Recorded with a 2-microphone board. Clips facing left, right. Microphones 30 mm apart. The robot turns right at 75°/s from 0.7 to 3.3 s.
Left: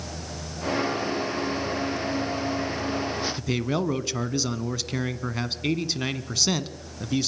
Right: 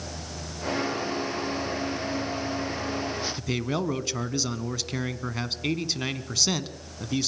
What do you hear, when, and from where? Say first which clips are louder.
3.4 s a man speaking: left 2 dB; centre (ahead or behind), 1.1 m